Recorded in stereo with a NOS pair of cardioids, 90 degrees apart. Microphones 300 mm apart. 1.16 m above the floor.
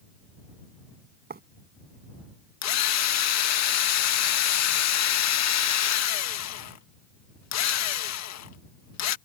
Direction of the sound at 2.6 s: 65° left.